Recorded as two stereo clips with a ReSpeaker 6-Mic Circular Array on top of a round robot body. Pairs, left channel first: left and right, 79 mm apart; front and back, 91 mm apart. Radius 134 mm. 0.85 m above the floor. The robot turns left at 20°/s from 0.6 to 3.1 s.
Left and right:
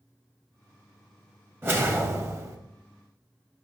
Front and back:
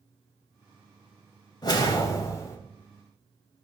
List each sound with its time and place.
1.6 s a whoosh: 35° right, 1.3 m; by 2.6 s 55° right, 1.3 m